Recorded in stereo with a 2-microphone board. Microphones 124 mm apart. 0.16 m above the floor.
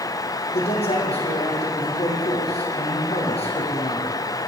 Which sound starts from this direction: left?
A man speaking, at 0.5 s.